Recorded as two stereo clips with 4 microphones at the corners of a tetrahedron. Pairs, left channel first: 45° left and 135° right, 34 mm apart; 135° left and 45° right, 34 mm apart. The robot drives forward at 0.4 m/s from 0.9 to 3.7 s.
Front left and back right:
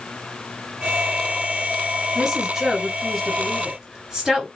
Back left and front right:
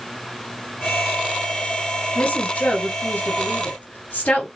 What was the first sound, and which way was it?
A woman speaking, 145° left.